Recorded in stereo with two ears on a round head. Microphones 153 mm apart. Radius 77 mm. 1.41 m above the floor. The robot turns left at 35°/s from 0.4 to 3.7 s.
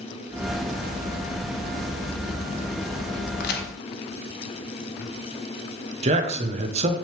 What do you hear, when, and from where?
3.4 s a crack: 60° left (ahead or behind), 0.9 m; by 3.7 s 55° left (ahead or behind), 0.9 m
6.0 s a man speaking: 40° right (ahead or behind), 1.0 m